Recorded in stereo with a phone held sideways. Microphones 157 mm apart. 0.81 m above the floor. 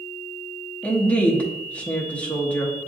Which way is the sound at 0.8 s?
10° left (ahead or behind).